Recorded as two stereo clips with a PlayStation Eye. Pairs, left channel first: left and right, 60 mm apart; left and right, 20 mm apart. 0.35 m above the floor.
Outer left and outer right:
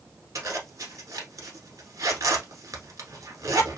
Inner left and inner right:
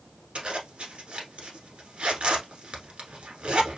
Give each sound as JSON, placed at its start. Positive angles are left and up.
{"t": 0.3, "sound": "a zipper", "side_deg": -85, "distance_m": 1.1}